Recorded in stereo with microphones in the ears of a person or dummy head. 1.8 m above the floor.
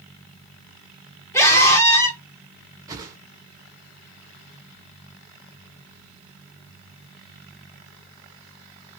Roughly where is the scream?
Centre.